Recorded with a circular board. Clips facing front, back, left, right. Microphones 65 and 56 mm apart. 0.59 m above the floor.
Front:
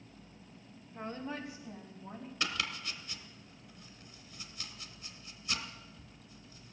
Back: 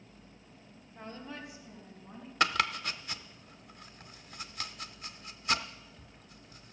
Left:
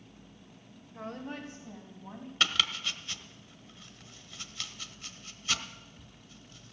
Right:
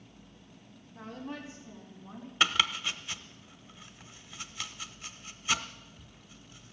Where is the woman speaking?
60° left, 2.5 m.